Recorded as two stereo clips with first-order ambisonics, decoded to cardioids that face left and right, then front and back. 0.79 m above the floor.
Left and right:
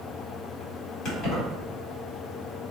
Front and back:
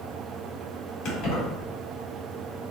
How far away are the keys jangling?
About 1.5 m.